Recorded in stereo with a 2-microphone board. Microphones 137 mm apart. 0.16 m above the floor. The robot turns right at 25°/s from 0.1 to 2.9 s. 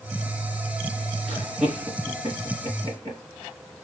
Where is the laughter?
5° right (ahead or behind), 2.5 m; by 3.2 s 35° right (ahead or behind), 2.5 m.